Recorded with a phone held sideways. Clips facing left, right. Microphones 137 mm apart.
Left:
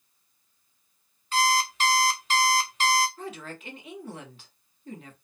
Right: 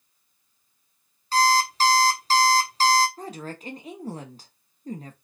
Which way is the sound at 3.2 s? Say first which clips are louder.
Right 3 dB; 40° right (ahead or behind).